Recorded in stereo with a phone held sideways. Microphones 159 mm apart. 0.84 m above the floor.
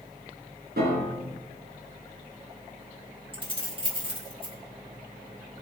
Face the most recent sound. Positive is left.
turn(degrees=-35)  # may be behind; listen again after turning